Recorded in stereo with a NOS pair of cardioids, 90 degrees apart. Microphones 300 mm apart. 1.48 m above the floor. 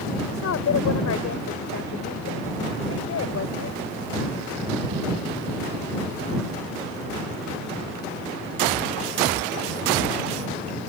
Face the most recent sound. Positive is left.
turn(degrees=50)